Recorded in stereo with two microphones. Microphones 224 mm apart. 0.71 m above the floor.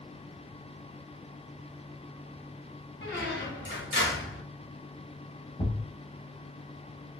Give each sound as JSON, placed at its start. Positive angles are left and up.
{"t": 3.0, "sound": "a squeak", "side_deg": 55, "distance_m": 1.6}
{"t": 5.6, "sound": "a thud", "side_deg": 20, "distance_m": 0.7}